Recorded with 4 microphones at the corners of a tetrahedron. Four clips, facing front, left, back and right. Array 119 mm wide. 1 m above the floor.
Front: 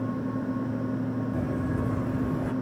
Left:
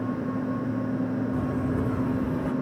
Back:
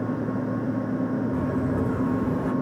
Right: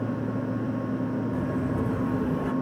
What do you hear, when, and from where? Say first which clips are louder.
1.3 s footsteps: left 1 dB, back 4 dB; 170° left, 2 m; by 2.5 s 170° right, 1.6 m